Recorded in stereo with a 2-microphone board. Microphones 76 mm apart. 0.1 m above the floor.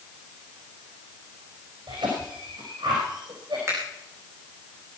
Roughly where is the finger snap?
Right.